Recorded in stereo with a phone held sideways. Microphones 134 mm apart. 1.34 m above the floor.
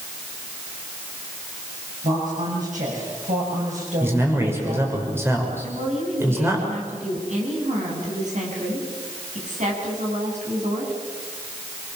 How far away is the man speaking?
About 5.5 m.